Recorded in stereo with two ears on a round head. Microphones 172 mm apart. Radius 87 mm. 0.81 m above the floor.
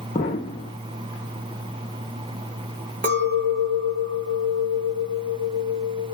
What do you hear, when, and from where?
0.1 s an explosion: 35° left (ahead or behind), 0.6 m
3.0 s a clink: 45° right (ahead or behind), 0.9 m